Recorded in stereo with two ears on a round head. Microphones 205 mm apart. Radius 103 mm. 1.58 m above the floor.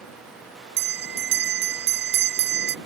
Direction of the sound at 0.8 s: 60° right (ahead or behind).